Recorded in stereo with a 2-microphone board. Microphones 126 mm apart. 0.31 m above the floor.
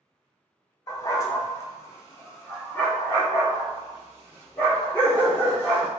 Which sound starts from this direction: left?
A dog barking, at 0.9 s.